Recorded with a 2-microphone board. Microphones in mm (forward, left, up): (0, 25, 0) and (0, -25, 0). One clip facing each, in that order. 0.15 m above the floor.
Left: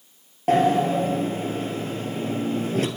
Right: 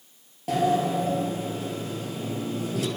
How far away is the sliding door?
About 2.5 m.